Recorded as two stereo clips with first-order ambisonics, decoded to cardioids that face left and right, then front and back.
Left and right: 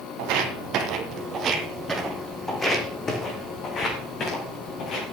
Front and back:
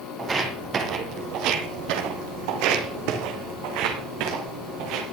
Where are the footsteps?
105° right, 1.7 m; by 5.0 s 145° left, 4 m.